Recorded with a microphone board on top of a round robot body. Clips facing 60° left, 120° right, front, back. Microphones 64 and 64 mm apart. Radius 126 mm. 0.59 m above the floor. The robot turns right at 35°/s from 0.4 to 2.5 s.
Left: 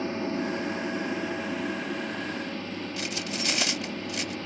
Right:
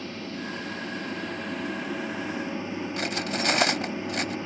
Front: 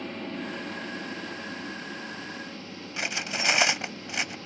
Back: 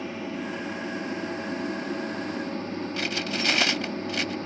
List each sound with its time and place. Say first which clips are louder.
0.0 s an aircraft: left 6 dB, back 2 dB; 100° left; by 4.5 s 175° left
3.0 s cutlery clinking: right 6 dB, front 1 dB; 75° right